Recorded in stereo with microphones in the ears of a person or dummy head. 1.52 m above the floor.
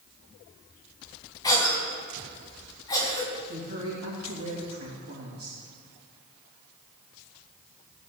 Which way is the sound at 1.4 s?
20° left (ahead or behind).